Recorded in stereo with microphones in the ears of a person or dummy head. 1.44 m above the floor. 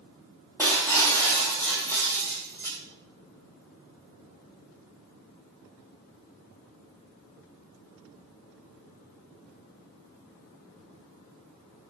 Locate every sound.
0.6 s breaking glass: 10° left (ahead or behind), 1.2 m